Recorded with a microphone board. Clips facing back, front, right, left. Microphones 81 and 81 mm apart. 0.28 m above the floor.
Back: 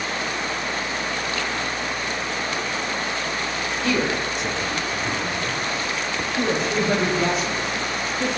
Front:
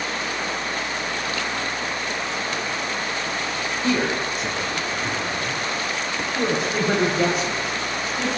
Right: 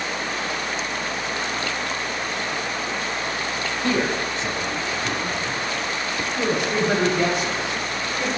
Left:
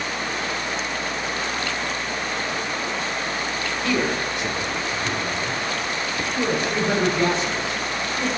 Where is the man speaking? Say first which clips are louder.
Front 1 dB, right 1 dB; 50° right, 1.5 m; by 8.3 s 10° right, 5.5 m.